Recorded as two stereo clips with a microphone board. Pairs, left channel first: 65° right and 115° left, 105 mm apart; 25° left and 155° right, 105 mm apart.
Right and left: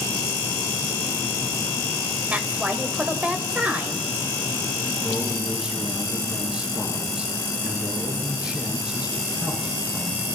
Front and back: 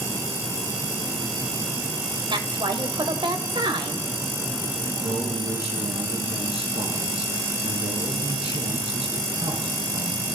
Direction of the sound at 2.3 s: 175° right.